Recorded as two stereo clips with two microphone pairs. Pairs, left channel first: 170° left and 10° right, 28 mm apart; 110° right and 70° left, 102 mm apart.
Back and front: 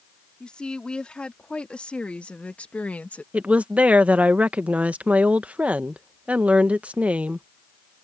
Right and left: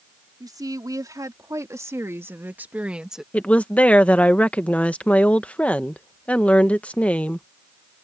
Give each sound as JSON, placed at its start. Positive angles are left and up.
{"t": 0.4, "sound": "a woman speaking", "azimuth_deg": 120}
{"t": 3.3, "sound": "a woman speaking", "azimuth_deg": -35}